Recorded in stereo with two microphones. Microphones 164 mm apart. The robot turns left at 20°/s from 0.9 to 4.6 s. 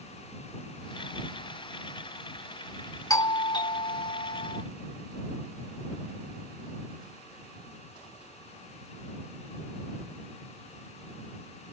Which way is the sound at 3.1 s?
20° left (ahead or behind).